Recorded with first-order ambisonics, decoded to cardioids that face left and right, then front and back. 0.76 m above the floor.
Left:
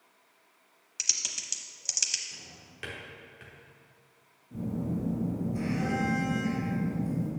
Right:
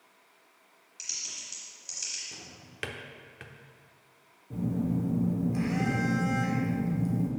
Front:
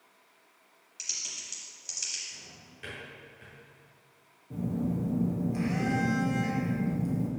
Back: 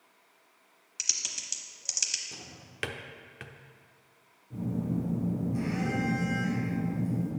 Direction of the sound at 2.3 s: 155° right.